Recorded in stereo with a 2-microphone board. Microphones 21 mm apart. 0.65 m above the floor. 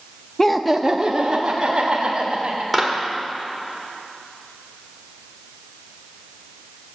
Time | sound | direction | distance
0.4 | laughter | 20° left (ahead or behind) | 0.6 m
2.7 | a clap | 5° left (ahead or behind) | 1.9 m